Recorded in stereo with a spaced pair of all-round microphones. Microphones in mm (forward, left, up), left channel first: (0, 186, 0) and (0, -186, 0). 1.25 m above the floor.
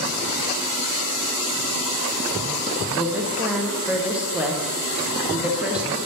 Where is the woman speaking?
5° right (ahead or behind), 0.6 m.